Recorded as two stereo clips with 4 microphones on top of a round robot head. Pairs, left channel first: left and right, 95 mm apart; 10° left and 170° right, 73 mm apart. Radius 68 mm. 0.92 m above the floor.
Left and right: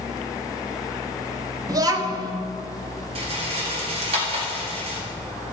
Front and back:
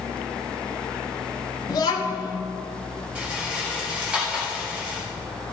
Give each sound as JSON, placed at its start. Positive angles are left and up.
{"t": 1.7, "sound": "a child speaking", "azimuth_deg": -40, "distance_m": 1.1}
{"t": 3.1, "sound": "a rattle", "azimuth_deg": -90, "distance_m": 1.8}